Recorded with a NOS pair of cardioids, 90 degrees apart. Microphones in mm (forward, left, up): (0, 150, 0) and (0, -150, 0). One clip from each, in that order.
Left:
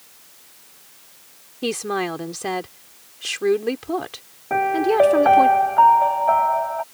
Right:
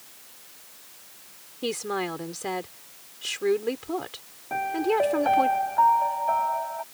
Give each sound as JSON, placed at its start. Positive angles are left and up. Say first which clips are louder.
{"t": 1.6, "sound": "a woman speaking", "louder": "left 5 dB", "azimuth_deg": 35}
{"t": 4.5, "sound": "a piano", "louder": "left 6 dB", "azimuth_deg": 55}